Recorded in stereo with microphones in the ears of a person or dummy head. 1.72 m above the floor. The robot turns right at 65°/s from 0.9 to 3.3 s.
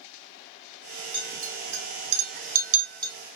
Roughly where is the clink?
Right.